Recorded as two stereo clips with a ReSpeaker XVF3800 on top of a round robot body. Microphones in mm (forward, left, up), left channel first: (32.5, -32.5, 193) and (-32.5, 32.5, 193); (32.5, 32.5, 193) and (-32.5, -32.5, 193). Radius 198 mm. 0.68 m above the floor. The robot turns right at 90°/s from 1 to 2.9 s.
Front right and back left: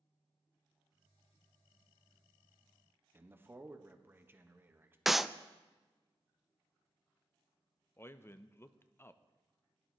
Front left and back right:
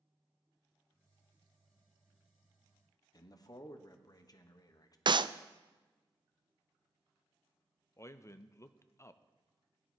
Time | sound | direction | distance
3.1 | a man speaking | 75° left | 1.2 m
5.1 | a clap | 140° right | 0.5 m
8.0 | a man speaking | 5° left | 0.7 m